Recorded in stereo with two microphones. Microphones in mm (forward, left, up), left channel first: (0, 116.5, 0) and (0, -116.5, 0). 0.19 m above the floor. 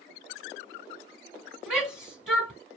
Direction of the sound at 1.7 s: 5° right (ahead or behind).